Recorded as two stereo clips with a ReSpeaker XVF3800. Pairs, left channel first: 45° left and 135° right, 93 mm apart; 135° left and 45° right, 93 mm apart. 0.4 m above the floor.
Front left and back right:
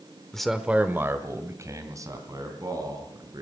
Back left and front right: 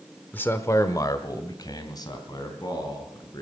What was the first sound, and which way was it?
A man speaking, 115° left.